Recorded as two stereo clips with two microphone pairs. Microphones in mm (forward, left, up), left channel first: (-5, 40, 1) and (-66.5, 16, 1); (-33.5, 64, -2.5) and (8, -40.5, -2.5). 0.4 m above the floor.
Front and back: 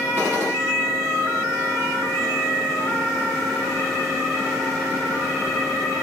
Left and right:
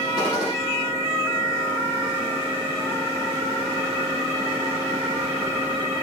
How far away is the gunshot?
About 10 m.